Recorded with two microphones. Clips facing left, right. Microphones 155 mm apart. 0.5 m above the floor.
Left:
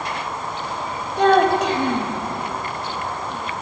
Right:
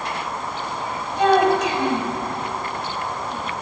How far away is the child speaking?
About 1.5 m.